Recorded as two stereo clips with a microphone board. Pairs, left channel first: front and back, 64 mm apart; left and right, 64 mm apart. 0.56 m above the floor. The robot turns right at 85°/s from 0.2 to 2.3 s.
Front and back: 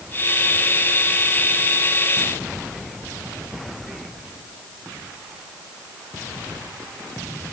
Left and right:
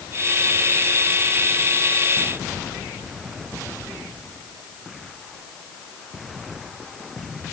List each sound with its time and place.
Only background noise.